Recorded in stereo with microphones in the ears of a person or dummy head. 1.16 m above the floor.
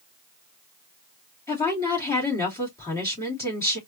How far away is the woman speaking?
About 3 m.